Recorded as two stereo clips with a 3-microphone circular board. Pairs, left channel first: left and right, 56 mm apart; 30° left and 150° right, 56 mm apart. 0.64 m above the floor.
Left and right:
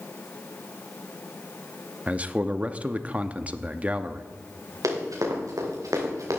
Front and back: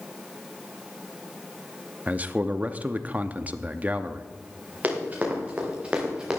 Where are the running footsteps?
90° right, 4.5 m; by 6.4 s 75° right, 3 m.